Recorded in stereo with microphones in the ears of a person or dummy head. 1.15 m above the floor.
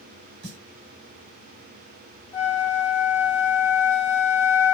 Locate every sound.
0.4 s a snare drum: 55° right (ahead or behind), 1.4 m
2.3 s a flute: 15° left (ahead or behind), 1.7 m